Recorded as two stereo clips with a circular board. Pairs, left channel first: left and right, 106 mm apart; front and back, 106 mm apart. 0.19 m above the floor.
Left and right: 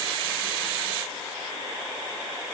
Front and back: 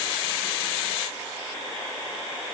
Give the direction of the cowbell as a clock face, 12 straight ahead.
No cowbell in this recording.